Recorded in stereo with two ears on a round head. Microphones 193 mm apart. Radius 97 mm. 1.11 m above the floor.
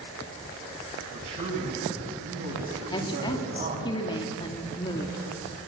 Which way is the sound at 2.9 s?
20° left (ahead or behind).